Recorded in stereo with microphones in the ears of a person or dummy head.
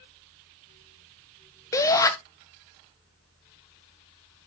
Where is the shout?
20° left (ahead or behind), 1.4 m.